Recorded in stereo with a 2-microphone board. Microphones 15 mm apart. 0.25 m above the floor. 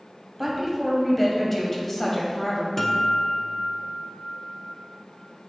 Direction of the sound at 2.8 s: 20° left (ahead or behind).